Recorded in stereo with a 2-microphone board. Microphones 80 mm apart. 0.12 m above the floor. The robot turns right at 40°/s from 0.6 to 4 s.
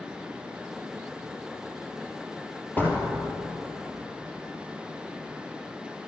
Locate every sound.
2.8 s a door slam: 20° left (ahead or behind), 2.5 m; by 3.1 s 30° left (ahead or behind), 2.5 m